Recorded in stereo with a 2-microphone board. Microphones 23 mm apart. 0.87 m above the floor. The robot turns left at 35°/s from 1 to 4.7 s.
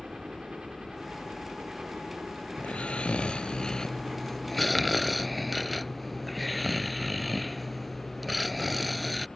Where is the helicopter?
60° right; by 9.4 s 170° left.